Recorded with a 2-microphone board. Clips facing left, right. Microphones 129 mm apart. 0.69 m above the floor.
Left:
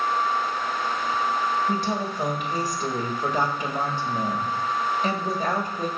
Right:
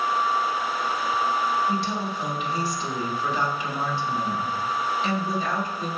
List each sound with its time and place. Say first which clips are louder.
1.7 s a woman speaking: left 1 dB; 50° left (ahead or behind), 1.5 m